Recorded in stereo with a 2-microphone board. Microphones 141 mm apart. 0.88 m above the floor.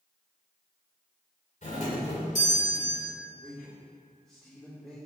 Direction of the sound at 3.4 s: 5° left (ahead or behind).